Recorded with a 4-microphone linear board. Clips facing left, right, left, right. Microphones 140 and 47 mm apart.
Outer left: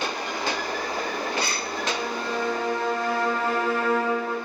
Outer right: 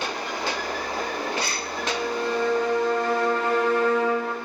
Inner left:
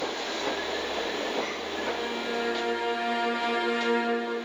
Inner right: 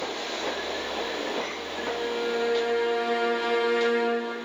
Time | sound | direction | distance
1.8 | a violin | 5° left (ahead or behind) | 1.5 m